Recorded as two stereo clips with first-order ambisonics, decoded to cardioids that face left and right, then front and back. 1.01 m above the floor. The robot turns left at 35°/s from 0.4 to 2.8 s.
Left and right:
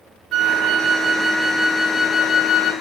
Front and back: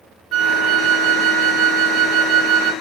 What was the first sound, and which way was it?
A flute, 135° right.